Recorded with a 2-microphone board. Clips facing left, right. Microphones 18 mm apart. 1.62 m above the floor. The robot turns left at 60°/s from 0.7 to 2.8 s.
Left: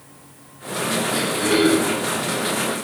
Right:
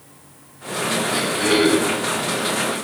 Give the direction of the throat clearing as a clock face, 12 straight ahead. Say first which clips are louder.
Right 1 dB; 12 o'clock.